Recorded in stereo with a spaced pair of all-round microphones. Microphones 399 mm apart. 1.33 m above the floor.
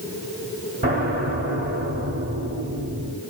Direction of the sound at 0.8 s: 25° right (ahead or behind).